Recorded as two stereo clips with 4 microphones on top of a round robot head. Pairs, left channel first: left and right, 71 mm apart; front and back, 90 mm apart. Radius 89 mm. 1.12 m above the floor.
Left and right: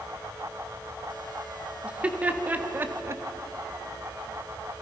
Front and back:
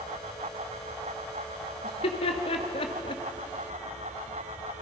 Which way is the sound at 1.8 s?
15° right.